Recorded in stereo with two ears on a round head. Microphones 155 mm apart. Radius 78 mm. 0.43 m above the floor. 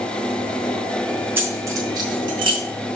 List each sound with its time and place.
1.4 s keys jangling: 15° right (ahead or behind), 2.5 m; by 2.6 s 35° right (ahead or behind), 2.5 m